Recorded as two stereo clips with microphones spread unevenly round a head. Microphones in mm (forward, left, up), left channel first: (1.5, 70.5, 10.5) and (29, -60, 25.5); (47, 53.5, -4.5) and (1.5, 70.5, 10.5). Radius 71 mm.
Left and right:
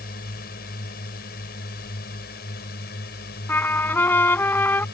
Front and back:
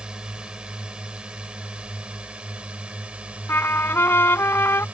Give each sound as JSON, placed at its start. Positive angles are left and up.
{"t": 0.0, "sound": "a drone", "azimuth_deg": 90}
{"t": 3.5, "sound": "a trumpet", "azimuth_deg": 25}